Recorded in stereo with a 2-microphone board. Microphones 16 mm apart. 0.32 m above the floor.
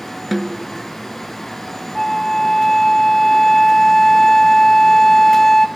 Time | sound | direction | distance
0.3 | a snare drum | 5° right (ahead or behind) | 0.7 m
1.9 | a flute | 25° left (ahead or behind) | 0.7 m